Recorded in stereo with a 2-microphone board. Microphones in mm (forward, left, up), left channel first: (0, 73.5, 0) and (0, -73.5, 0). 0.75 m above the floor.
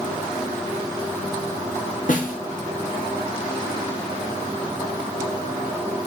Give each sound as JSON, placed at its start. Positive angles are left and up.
{"t": 2.1, "sound": "a snare drum", "side_deg": 65, "distance_m": 0.8}